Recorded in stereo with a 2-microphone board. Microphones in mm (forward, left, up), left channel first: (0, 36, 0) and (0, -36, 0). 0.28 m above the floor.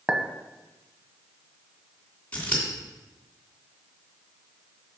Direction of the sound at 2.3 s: 20° left (ahead or behind).